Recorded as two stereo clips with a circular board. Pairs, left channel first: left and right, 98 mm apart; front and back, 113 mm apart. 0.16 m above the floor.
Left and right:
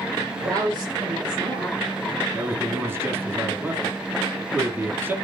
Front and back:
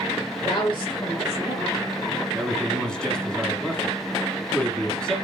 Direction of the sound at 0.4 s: 40° right.